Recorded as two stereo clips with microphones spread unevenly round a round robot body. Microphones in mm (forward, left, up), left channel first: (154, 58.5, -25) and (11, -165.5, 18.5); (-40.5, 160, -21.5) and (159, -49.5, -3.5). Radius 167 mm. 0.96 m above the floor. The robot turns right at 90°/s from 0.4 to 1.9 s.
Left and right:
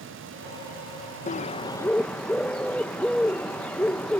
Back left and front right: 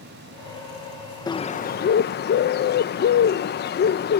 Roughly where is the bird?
Left.